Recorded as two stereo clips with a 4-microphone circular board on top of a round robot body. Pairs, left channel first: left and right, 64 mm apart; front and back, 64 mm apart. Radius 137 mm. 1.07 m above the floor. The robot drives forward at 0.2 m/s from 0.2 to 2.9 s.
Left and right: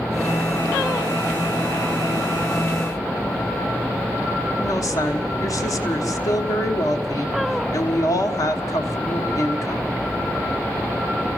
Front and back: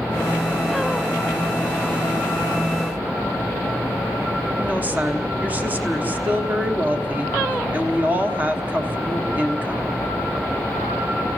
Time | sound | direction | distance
4.6 | a woman speaking | 115° left | 1.1 m